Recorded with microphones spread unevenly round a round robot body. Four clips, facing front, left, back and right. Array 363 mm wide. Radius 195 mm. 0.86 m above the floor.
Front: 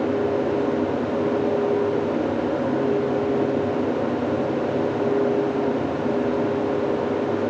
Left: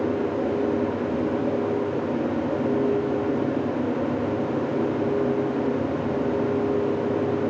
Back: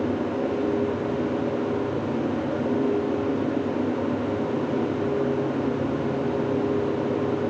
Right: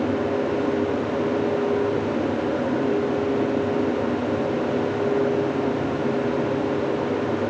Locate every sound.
Only background noise.